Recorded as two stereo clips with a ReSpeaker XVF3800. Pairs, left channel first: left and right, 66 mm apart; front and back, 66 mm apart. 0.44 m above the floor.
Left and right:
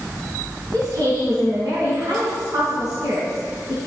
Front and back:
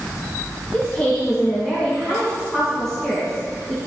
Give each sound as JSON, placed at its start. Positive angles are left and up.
{"t": 0.7, "sound": "a woman speaking", "azimuth_deg": -80, "distance_m": 3.0}